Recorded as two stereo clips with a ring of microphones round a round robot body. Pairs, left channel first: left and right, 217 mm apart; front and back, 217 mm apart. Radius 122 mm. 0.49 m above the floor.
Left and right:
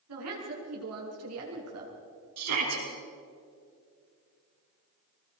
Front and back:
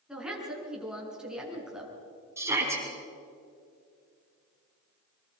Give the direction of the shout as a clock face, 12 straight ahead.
3 o'clock.